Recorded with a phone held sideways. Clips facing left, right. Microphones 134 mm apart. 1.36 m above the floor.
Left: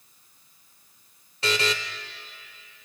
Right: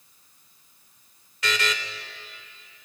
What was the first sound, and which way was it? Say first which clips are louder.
A buzzer: left 2 dB; 30° left (ahead or behind).